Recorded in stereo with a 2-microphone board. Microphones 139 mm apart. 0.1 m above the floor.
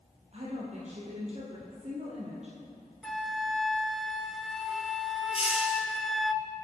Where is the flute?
Centre (ahead or behind), 0.5 m.